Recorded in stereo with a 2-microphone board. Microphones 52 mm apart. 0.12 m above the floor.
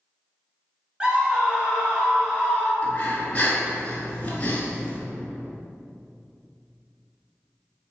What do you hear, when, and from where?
1.0 s a scream: 20° right (ahead or behind), 1.1 m
2.8 s breathing: 25° left (ahead or behind), 1.1 m